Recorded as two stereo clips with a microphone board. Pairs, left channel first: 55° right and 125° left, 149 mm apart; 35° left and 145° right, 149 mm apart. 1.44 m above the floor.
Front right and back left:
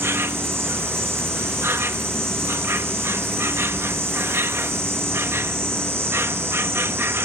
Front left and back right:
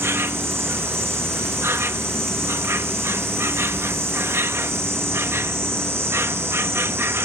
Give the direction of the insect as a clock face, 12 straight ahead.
6 o'clock.